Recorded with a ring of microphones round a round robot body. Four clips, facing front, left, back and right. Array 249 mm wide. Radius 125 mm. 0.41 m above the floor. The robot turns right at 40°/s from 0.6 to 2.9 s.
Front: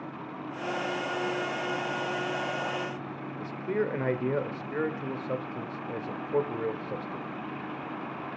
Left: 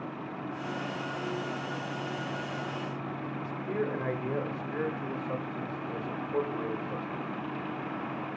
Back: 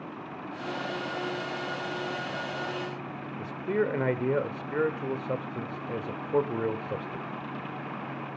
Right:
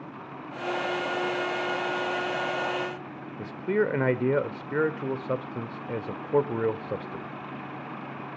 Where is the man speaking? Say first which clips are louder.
Right 8 dB, back 2 dB; 105° right, 1.1 m.